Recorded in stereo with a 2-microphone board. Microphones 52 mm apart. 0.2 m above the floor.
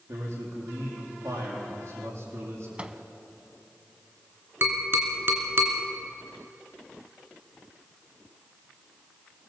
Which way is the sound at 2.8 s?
25° right (ahead or behind).